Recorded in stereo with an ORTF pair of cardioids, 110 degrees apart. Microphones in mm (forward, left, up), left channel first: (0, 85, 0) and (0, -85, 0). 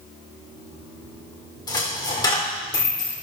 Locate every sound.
1.7 s a dropped coin: 25° left, 2.0 m